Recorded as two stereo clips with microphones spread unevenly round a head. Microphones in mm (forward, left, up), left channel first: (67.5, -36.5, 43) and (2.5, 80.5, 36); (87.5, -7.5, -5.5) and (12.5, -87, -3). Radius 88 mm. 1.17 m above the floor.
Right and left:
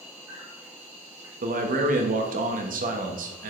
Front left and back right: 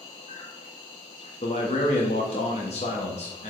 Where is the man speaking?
105° left, 1.5 m.